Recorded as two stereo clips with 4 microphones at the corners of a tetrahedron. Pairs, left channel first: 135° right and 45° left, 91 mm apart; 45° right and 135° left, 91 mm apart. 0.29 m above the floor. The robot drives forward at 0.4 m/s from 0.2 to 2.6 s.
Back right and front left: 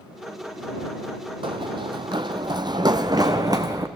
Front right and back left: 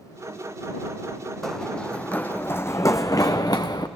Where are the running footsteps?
40° left, 0.6 m; by 3.9 s straight ahead, 1.3 m.